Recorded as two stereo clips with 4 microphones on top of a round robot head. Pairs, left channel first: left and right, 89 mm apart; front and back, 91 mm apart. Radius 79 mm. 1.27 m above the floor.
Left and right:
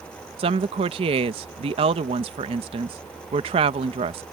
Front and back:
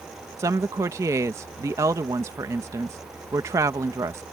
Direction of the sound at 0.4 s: 115° right.